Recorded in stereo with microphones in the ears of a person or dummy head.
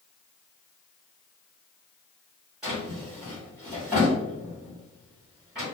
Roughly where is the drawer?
Centre.